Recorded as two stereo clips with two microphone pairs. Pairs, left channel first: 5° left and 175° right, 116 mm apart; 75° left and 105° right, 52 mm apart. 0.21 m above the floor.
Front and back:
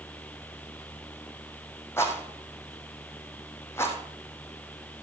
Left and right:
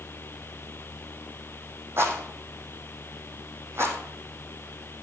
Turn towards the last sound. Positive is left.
turn(degrees=-65)